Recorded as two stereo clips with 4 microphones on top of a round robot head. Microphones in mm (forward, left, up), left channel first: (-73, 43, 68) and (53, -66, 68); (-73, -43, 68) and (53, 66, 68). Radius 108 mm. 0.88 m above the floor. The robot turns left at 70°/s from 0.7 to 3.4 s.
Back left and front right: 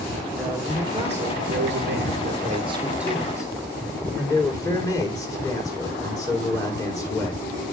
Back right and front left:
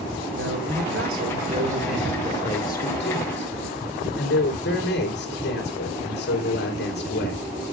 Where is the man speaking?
40° left, 3 m; by 7.4 s 150° right, 3 m.